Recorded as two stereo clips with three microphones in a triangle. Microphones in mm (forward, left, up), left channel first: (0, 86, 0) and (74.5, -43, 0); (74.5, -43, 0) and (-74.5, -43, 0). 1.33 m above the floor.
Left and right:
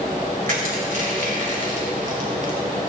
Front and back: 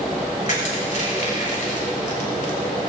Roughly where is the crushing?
Ahead right.